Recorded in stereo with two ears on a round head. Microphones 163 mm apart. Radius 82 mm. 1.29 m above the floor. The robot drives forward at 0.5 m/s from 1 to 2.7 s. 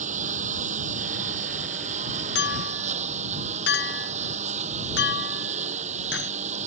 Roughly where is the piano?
I don't hear a piano.